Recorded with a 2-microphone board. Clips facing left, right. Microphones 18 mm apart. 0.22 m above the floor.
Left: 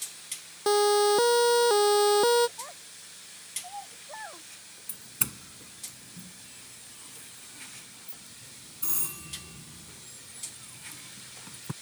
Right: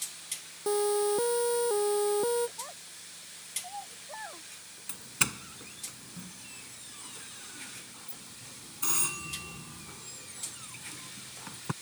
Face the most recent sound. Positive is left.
turn(degrees=-40)  # may be behind; listen again after turning